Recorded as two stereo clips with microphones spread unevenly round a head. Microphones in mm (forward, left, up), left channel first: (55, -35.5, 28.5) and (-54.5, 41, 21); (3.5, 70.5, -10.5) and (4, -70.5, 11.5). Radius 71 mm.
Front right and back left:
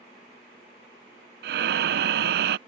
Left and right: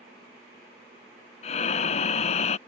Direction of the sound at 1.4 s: 140° left.